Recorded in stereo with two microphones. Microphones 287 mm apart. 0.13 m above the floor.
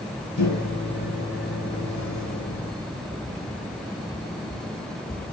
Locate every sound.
0.4 s a microwave: 40° left (ahead or behind), 1.8 m